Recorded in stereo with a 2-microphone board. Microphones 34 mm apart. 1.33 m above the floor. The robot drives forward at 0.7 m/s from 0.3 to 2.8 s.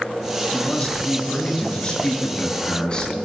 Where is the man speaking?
30° left (ahead or behind), 5.5 m; by 3.2 s 25° left (ahead or behind), 6.5 m.